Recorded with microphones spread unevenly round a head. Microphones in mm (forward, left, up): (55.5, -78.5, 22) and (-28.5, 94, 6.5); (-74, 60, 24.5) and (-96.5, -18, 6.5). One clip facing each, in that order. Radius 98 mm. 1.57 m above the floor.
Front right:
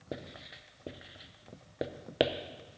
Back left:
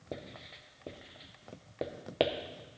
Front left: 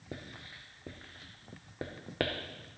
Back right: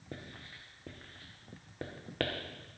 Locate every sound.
0.1 s writing: 5° left, 0.6 m